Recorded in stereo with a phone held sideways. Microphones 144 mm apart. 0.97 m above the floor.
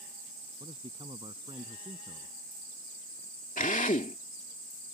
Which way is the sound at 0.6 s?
35° right (ahead or behind).